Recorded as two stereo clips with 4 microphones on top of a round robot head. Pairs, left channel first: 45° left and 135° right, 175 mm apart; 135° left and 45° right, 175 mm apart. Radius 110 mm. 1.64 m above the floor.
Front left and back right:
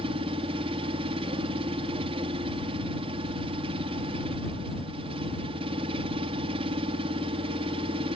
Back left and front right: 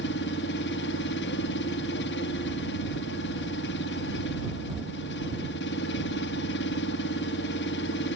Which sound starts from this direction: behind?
An engine running, at 0.0 s.